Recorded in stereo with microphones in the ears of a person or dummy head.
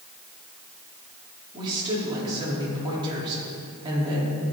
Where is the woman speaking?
25° right (ahead or behind), 4 m.